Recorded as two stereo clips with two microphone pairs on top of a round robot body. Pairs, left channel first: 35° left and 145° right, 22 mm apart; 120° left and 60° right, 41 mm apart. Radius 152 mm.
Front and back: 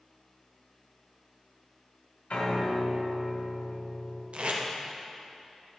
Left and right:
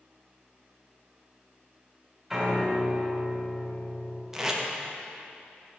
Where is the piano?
25° left, 1.9 m.